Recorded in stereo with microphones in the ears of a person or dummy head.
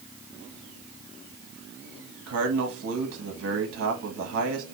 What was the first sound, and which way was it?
A man speaking, 75° right (ahead or behind).